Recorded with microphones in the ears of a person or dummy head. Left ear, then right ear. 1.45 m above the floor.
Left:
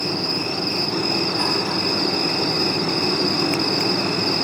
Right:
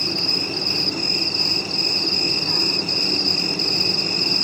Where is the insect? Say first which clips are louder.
Right 2 dB; 80° right, 2 m.